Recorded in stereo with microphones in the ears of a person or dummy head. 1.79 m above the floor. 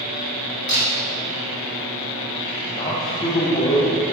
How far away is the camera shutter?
About 1.2 m.